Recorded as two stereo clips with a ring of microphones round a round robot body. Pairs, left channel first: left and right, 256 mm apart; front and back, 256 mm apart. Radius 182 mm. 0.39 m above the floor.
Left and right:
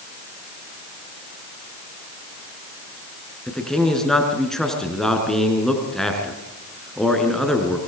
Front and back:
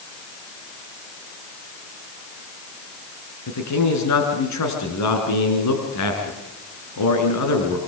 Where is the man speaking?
Straight ahead, 5 m.